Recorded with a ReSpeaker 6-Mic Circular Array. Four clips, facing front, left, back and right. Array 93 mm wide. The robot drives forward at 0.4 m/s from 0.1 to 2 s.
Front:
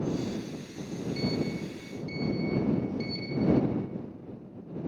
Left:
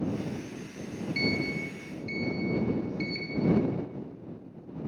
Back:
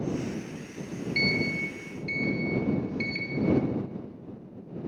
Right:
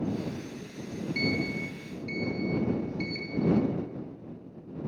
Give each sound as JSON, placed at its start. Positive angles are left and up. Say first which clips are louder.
{"t": 1.1, "sound": "a sliding door", "louder": "even, back 2 dB", "azimuth_deg": 180, "distance_m": 1.4}